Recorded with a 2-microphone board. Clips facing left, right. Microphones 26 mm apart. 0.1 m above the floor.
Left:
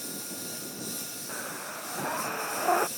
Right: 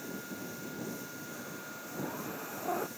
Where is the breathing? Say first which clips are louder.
Left 6 dB; 50° left (ahead or behind).